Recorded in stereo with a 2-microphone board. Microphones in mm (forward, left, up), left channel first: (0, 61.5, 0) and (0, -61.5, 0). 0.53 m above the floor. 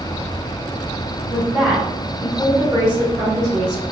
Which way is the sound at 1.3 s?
5° right (ahead or behind).